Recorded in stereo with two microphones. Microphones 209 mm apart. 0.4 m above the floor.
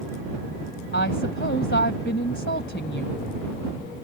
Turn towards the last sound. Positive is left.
turn(degrees=65)  # may be behind; listen again after turning